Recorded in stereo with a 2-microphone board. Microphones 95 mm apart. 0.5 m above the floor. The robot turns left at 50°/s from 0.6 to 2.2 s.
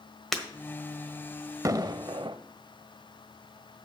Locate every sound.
0.3 s breaking glass: 5° left (ahead or behind), 1.4 m
1.6 s an explosion: 35° right (ahead or behind), 0.5 m; by 2.4 s 60° right (ahead or behind), 0.5 m